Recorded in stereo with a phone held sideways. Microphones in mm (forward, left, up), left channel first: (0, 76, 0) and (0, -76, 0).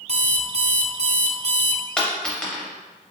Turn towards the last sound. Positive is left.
turn(degrees=5)  # may be behind; listen again after turning